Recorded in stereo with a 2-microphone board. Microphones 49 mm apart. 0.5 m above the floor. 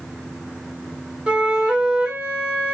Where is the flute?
25° right (ahead or behind), 1.9 m.